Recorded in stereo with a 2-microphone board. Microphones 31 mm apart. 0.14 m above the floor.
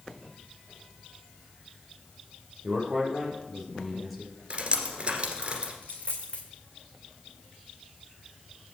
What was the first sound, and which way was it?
A man speaking, 10° right (ahead or behind).